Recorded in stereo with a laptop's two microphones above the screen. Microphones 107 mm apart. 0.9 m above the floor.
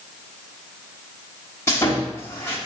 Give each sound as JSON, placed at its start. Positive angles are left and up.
{"t": 1.7, "sound": "sawing", "side_deg": 20, "distance_m": 1.1}